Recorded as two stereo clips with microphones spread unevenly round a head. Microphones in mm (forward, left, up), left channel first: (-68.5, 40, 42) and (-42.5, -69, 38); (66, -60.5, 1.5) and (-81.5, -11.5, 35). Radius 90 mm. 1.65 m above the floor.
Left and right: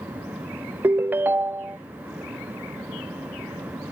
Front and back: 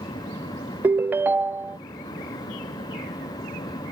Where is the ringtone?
145° right.